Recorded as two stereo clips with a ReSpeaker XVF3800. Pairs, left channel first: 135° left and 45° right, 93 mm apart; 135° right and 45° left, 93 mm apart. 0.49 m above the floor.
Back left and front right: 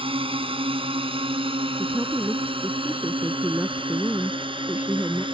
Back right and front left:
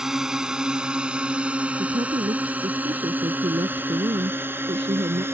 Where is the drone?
40° right; by 5.3 s 20° right.